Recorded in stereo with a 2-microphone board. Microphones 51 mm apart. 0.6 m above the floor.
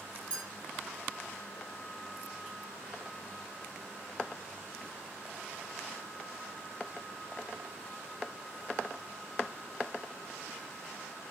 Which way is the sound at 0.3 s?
20° left (ahead or behind).